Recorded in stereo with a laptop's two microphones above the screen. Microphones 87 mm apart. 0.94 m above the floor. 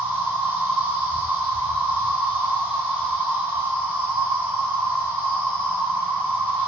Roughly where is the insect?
Right.